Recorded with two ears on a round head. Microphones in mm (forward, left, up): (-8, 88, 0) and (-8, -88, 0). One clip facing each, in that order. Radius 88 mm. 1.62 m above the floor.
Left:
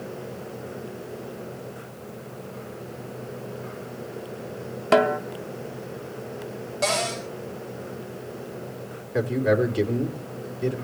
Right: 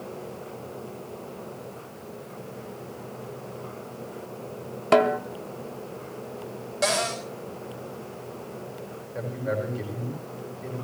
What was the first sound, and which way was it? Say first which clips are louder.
A snare drum: even; centre (ahead or behind).